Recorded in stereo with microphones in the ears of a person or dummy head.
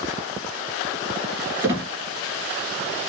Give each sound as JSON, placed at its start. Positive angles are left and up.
{"t": 1.6, "sound": "a squeak", "side_deg": -20, "distance_m": 1.6}